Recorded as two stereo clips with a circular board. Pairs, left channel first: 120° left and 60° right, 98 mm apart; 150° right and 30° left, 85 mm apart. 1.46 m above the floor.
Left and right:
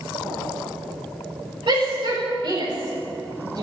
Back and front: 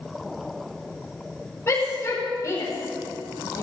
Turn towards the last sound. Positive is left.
turn(degrees=-95)